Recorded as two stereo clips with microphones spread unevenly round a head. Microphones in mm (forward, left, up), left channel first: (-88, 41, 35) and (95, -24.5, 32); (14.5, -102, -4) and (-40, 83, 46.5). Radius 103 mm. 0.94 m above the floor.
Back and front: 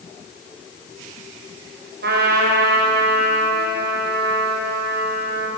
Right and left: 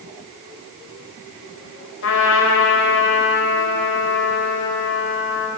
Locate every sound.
2.0 s a trumpet: 60° right, 5.5 m